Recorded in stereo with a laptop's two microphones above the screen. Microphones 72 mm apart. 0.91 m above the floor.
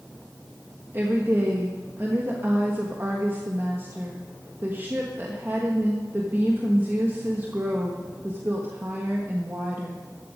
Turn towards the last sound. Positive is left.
turn(degrees=-30)  # may be behind; listen again after turning